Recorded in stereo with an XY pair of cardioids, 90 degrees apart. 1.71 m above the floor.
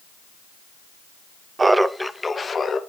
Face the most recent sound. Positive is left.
turn(degrees=45)